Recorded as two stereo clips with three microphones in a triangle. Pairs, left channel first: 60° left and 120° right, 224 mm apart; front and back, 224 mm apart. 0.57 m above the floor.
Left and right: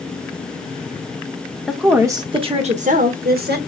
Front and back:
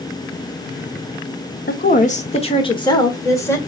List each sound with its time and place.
1.7 s a woman speaking: 30° right, 1.1 m; by 3.6 s 80° right, 1.8 m